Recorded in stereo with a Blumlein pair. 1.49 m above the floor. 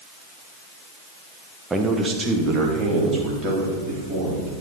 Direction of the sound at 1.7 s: 10° right.